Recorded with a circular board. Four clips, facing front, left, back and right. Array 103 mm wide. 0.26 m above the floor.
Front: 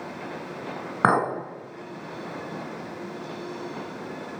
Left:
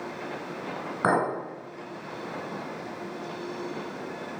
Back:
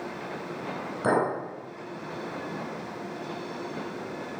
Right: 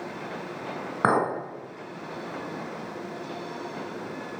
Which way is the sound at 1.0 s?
20° right.